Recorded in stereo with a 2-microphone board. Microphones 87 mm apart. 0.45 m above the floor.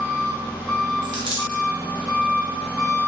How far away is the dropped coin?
About 0.8 m.